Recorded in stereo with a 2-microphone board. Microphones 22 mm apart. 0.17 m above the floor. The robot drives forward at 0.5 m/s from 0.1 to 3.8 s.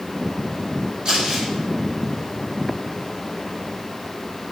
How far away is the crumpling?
About 2 m.